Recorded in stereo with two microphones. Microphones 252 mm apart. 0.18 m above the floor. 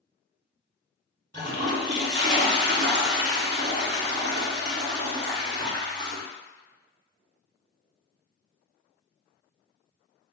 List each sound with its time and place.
1.3 s a toilet flushing: 45° right (ahead or behind), 0.6 m